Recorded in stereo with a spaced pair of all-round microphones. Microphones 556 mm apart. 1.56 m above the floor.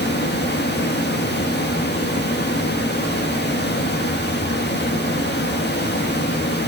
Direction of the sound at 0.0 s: 20° left (ahead or behind).